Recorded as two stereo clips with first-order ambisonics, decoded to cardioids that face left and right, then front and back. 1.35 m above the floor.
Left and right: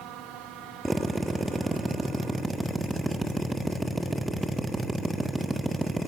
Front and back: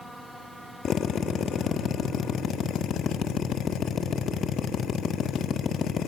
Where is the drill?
5° right, 0.9 m.